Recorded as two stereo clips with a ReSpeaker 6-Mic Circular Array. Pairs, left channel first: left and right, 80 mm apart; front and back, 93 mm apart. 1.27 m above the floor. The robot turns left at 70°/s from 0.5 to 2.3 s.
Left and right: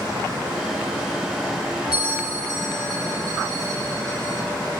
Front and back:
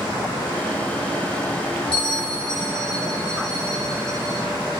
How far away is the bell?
About 3.5 m.